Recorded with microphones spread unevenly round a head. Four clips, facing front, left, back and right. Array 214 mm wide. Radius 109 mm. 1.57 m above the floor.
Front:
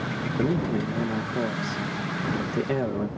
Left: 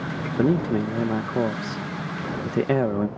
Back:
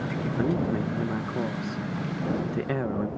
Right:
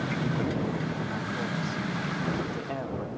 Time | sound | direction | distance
0.4 | a man speaking | 90° left | ?